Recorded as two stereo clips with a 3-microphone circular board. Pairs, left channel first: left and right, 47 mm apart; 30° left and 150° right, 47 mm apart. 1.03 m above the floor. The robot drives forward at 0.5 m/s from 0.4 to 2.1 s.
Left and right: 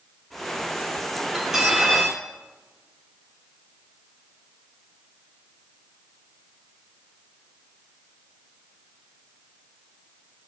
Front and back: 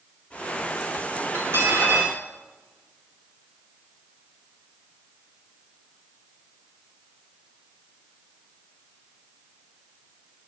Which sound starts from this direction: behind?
Cutlery clinking, at 1.3 s.